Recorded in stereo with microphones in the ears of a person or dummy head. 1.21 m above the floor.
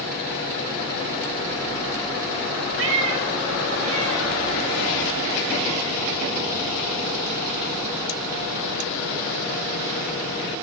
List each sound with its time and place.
2.8 s a cat meowing: 65° right (ahead or behind), 2.5 m; by 9.9 s 80° right, 13 m